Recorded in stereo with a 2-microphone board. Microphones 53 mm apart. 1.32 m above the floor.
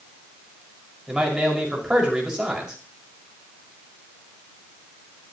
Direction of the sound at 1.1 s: 15° right (ahead or behind).